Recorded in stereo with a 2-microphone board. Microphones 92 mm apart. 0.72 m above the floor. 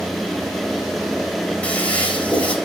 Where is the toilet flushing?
15° left (ahead or behind), 3.5 m.